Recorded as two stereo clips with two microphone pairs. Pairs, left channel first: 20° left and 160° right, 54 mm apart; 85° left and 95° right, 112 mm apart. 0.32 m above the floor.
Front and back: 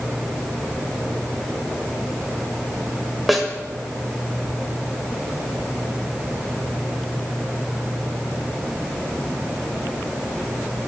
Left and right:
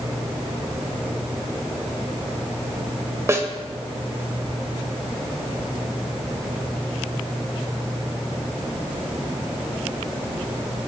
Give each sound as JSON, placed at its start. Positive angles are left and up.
{"t": 3.3, "sound": "a snare drum", "azimuth_deg": -70, "distance_m": 1.7}